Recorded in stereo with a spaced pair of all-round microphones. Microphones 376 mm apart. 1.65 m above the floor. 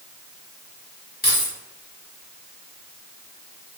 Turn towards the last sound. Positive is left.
turn(degrees=25)  # may be behind; listen again after turning